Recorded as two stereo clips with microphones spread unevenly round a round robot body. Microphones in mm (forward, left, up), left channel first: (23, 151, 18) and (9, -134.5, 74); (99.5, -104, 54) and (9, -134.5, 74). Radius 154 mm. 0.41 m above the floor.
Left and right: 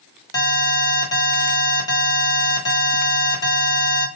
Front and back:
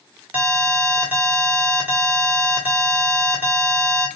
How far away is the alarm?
About 1.5 m.